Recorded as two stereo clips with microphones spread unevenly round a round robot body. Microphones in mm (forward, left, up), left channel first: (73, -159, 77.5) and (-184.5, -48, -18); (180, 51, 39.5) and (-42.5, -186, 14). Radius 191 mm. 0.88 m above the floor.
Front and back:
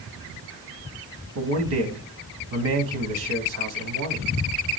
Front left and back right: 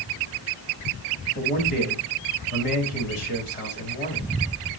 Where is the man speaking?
115° left, 1.2 m.